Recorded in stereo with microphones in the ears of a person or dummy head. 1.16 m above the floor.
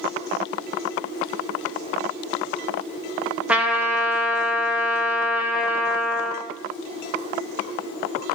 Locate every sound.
3.5 s a trumpet: 5° right (ahead or behind), 0.7 m